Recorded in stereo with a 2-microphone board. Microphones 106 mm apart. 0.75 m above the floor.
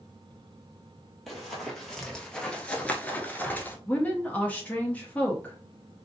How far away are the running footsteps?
About 1.3 m.